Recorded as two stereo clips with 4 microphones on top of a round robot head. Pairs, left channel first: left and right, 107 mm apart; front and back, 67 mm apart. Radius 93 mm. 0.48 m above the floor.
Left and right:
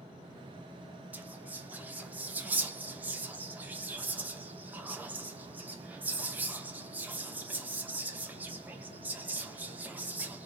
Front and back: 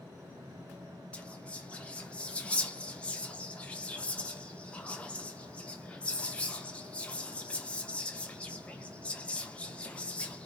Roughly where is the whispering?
Ahead right.